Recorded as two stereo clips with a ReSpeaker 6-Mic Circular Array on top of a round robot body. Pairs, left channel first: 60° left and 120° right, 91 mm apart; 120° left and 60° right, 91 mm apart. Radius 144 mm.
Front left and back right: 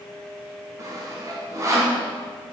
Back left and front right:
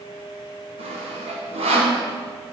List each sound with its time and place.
0.8 s sawing: 60° right, 0.9 m